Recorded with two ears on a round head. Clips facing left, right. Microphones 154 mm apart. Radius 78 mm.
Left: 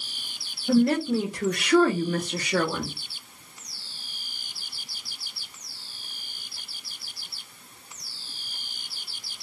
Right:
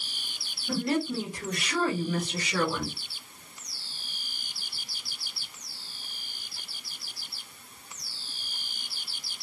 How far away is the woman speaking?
About 1.0 m.